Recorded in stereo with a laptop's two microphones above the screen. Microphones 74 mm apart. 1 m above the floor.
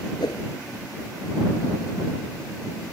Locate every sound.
0.2 s a whoosh: 80° left